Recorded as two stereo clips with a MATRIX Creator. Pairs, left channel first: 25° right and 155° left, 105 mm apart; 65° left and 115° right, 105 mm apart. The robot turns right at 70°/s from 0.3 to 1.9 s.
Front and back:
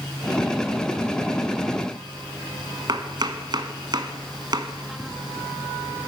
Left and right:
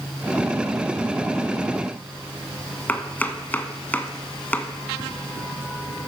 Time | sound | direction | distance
2.9 | chopping | 135° left | 0.8 m